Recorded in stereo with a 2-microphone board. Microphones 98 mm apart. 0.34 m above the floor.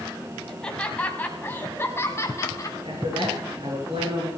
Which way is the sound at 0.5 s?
5° left (ahead or behind).